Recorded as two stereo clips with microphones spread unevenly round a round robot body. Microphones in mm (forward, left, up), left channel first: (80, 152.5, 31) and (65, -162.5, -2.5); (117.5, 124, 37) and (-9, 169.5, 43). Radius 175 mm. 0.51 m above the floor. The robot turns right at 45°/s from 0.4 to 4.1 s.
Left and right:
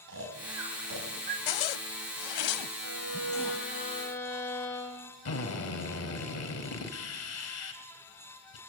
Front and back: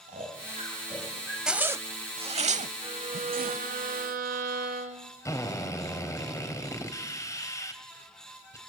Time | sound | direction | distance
0.1 | snoring | 150° right | 4 m
1.5 | a zipper | 75° left | 0.9 m
2.8 | a violin | 110° left | 2.5 m
5.2 | a drill | 45° left | 3.5 m